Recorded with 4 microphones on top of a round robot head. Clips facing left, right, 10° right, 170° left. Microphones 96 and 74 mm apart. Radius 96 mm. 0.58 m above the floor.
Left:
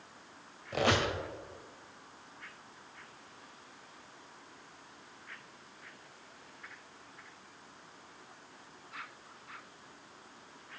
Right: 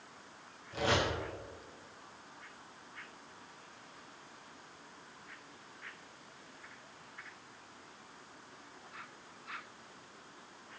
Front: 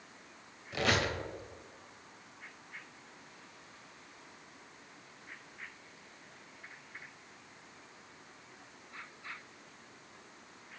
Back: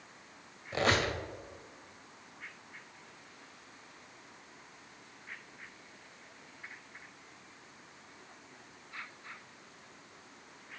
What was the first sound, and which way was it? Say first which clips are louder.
A squeak: left 2 dB, back 2 dB; 115° left.